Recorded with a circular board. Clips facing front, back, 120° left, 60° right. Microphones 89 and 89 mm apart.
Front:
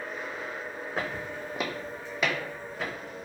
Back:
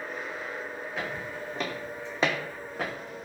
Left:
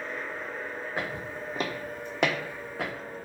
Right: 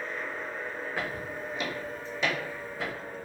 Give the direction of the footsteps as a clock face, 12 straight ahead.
10 o'clock.